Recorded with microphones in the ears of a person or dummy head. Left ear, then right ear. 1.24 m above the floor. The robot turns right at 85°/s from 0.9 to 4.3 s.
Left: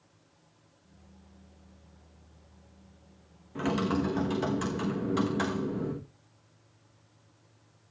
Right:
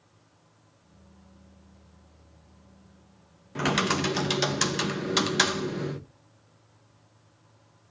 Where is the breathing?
I don't hear breathing.